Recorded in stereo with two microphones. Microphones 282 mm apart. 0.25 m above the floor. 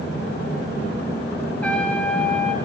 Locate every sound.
1.6 s a trumpet: 5° left (ahead or behind), 2 m